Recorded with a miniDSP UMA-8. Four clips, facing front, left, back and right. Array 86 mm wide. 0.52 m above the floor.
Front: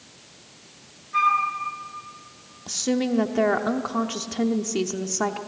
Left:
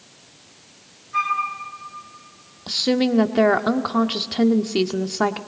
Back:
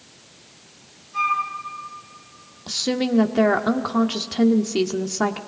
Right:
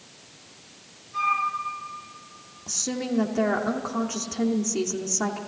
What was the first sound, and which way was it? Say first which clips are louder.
A flute: left 2 dB, front 2 dB; 45° left.